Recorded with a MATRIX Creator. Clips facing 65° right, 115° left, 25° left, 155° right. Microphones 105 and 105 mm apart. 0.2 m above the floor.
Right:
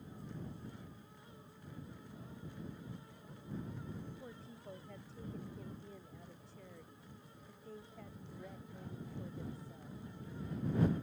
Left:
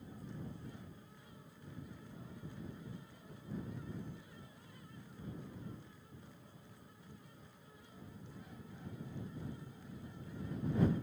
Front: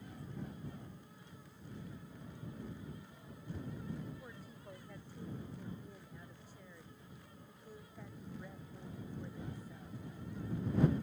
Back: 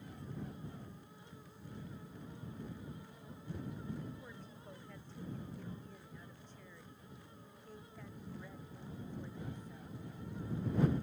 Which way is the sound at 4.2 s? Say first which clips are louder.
Right 6 dB, even; 60° right.